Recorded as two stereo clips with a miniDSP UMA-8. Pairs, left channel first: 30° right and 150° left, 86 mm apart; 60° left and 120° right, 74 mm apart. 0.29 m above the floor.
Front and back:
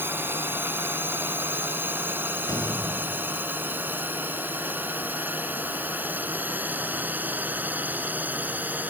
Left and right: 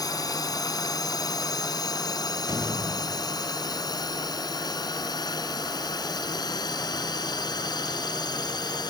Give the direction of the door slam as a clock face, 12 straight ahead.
3 o'clock.